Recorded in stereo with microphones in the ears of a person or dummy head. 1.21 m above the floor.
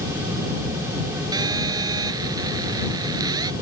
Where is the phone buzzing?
20° right (ahead or behind).